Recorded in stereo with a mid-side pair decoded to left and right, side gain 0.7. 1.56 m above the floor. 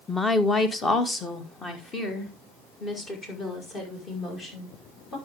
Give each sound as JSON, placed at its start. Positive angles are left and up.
{"t": 0.1, "sound": "a woman speaking", "azimuth_deg": 10, "distance_m": 1.0}